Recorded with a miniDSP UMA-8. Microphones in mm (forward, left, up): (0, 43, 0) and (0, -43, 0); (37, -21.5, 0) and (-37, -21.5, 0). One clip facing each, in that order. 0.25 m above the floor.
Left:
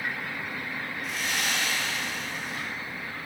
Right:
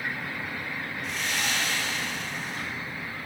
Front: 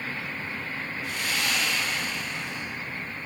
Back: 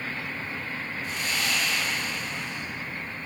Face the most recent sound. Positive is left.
turn(degrees=0)